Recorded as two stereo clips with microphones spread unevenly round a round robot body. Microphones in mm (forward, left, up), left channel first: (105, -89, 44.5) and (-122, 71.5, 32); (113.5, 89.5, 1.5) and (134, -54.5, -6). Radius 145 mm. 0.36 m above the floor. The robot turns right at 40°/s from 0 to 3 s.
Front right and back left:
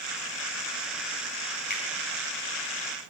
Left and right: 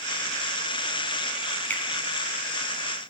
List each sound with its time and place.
1.7 s a finger snap: 20° left, 3 m; by 1.8 s 25° left, 3 m